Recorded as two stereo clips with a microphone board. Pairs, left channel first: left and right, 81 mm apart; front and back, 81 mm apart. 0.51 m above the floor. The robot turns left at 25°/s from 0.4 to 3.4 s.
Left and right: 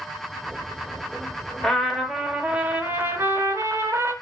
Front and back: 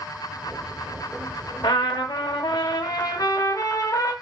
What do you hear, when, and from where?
1.6 s a trumpet: 5° left, 0.8 m; by 4.1 s 40° right, 0.8 m